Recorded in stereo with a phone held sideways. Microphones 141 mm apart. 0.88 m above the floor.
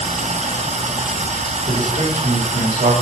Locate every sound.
0.0 s running water: 50° right (ahead or behind), 0.7 m
1.7 s a man speaking: 85° right, 2.5 m